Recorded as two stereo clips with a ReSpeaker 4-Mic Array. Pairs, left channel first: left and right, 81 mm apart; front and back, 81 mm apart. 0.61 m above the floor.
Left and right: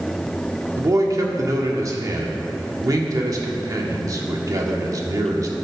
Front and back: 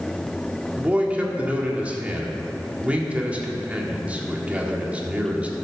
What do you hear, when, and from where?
0.8 s a man speaking: 110° right, 1.5 m